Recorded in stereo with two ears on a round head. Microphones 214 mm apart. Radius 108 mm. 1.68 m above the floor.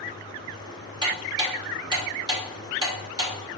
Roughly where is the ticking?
Centre.